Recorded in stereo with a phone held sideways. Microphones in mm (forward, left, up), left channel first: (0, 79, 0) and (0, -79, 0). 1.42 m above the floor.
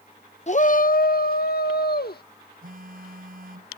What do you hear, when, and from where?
0.5 s a shout: 45° left (ahead or behind); by 2.2 s 80° left
2.6 s a phone buzzing: 70° right (ahead or behind)